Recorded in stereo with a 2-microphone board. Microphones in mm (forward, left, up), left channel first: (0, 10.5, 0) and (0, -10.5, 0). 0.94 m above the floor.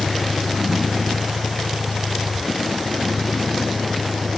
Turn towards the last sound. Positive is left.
turn(degrees=-15)  # may be behind; listen again after turning